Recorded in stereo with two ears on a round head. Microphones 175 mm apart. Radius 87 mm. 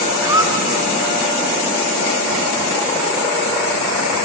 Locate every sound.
0.2 s a squeak: 15° right (ahead or behind), 1.4 m